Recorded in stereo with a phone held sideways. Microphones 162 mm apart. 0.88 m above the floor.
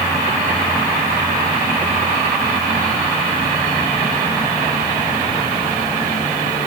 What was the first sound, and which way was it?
Only background noise.